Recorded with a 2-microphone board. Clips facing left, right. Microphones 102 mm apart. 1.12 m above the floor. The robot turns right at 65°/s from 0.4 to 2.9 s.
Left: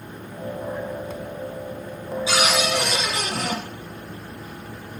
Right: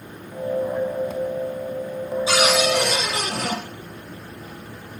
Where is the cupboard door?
140° right, 1.8 m; by 3.6 s 100° right, 1.8 m.